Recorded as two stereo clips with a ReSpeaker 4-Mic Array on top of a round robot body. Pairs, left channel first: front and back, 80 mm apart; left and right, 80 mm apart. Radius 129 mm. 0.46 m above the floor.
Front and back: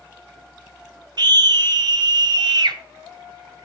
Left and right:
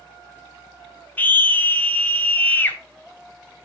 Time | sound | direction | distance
1.2 | a scream | 160° left | 1.8 m